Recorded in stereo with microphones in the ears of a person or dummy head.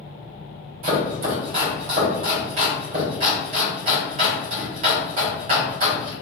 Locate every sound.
0.8 s chopping: 40° right (ahead or behind), 1.4 m